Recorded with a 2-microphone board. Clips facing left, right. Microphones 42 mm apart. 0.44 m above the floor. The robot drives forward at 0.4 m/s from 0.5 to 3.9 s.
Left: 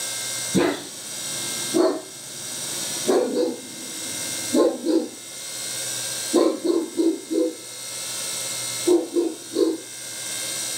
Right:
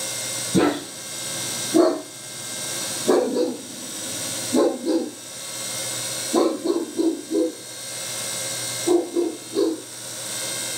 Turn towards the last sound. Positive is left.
turn(degrees=0)  # may be behind; listen again after turning